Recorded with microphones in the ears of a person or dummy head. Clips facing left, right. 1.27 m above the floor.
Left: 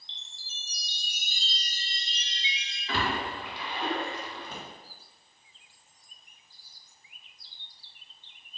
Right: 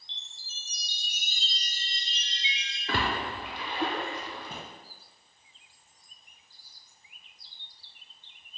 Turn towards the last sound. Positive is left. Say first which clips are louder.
# even
turn(degrees=70)  # may be behind; listen again after turning